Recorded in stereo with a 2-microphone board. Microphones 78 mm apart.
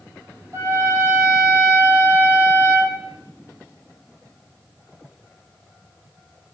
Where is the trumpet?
40° right (ahead or behind), 3 m.